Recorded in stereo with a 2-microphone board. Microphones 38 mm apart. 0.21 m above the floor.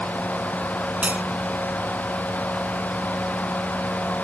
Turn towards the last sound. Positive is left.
turn(degrees=-40)  # may be behind; listen again after turning